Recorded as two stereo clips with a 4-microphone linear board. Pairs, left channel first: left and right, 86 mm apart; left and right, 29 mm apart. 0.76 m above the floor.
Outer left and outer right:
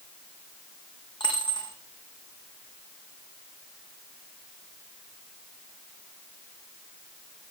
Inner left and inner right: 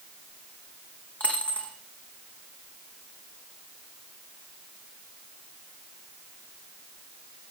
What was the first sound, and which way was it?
A dropped coin, 60° left (ahead or behind).